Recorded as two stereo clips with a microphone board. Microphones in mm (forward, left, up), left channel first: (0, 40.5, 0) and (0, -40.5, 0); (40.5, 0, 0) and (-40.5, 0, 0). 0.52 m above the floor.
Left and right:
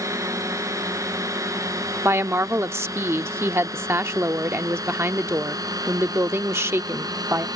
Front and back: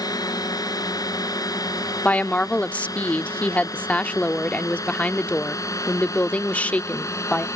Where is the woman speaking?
60° right.